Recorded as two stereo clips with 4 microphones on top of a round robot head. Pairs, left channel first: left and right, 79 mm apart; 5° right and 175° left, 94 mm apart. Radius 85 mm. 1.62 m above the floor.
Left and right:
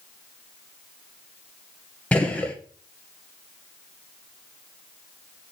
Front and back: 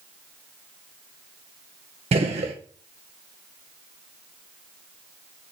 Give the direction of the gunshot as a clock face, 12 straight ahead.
6 o'clock.